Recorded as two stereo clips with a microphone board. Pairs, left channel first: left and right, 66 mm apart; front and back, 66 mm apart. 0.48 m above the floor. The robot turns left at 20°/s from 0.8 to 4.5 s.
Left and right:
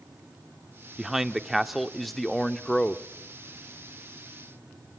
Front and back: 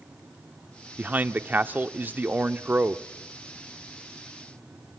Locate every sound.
1.0 s a man speaking: 155° right, 0.8 m; by 3.0 s 160° left, 0.8 m